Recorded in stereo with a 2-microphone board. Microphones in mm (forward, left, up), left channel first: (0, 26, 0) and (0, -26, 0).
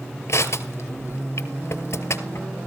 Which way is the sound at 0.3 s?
60° left (ahead or behind).